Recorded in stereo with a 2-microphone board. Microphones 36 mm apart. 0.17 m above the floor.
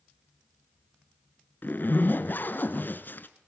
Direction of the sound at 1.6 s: 55° left (ahead or behind).